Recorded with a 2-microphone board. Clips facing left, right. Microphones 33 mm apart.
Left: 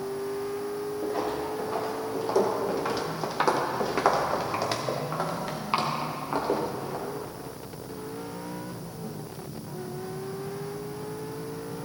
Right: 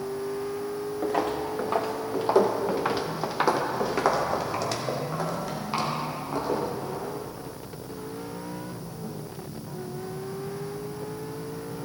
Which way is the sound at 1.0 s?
65° right (ahead or behind).